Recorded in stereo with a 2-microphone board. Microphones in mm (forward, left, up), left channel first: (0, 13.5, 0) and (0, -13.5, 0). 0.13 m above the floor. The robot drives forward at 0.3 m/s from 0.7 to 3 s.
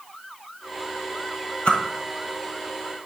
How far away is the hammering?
No hammering in this recording.